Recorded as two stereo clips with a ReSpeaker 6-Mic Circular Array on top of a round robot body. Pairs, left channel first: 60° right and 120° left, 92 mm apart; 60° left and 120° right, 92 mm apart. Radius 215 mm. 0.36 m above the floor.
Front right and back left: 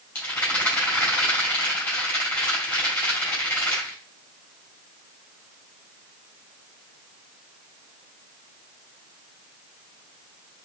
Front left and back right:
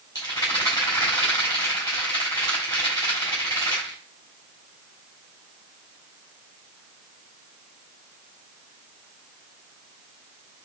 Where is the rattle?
10° left, 3.5 m.